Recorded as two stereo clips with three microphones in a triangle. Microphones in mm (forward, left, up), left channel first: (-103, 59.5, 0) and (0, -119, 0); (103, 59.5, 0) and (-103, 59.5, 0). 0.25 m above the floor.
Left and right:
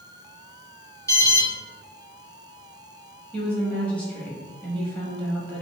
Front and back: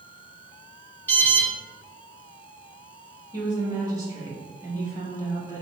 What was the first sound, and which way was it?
An alarm, 70° left.